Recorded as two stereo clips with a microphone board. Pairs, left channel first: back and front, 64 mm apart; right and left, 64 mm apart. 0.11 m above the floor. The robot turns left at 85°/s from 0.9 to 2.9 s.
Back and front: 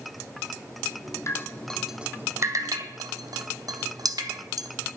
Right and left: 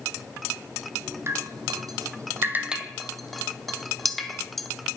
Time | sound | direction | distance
1.3 | dripping | 140° left | 1.0 m